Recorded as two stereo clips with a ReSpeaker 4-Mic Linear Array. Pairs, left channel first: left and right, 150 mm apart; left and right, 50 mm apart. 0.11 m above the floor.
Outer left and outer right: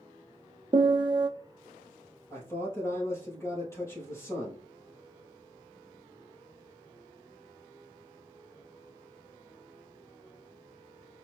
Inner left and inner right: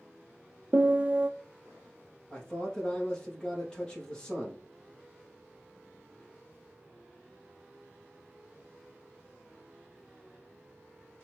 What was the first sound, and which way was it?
A piano, 30° right (ahead or behind).